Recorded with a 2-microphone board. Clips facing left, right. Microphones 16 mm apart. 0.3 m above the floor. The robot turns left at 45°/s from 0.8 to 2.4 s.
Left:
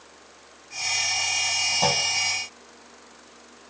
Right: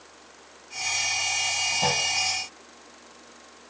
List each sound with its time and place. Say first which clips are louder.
1.8 s a clunk: left 2 dB; 25° left (ahead or behind), 3 m; by 2.1 s 15° left (ahead or behind), 3 m